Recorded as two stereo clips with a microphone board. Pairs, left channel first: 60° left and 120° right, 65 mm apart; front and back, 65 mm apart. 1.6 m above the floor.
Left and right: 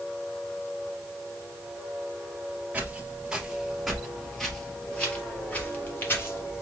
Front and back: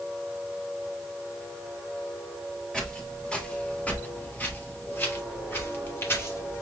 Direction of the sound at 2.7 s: 75° right.